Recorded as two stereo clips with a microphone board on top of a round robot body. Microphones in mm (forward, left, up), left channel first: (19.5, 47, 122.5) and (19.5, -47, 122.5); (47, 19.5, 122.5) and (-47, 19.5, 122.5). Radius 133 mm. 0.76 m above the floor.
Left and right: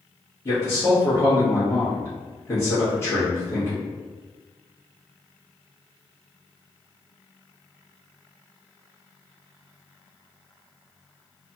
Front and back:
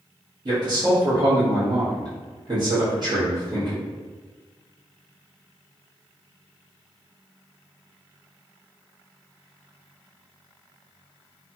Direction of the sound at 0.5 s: 145° left.